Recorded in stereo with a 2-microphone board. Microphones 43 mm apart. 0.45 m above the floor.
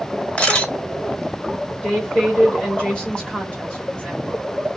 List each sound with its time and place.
0.4 s a camera shutter: 20° left (ahead or behind), 2 m
1.8 s a woman speaking: 25° left (ahead or behind), 1.8 m